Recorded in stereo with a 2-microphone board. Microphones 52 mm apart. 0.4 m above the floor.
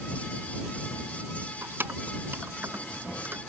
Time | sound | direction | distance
1.6 | keys jangling | 45° right (ahead or behind) | ?